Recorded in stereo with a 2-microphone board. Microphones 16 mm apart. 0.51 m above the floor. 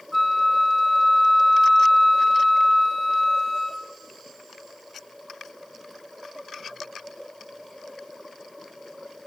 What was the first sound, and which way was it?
A flute, 20° right (ahead or behind).